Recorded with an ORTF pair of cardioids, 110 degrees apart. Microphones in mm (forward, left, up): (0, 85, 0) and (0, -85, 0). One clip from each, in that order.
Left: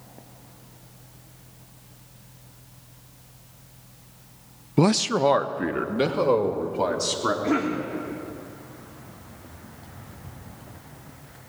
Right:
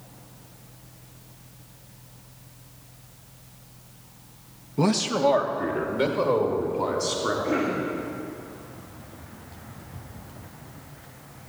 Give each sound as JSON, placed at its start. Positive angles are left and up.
{"t": 4.8, "sound": "a man speaking", "azimuth_deg": 55, "distance_m": 0.5}
{"t": 7.4, "sound": "a cough", "azimuth_deg": 60, "distance_m": 2.5}